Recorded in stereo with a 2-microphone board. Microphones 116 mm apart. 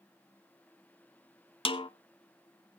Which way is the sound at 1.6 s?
50° left (ahead or behind).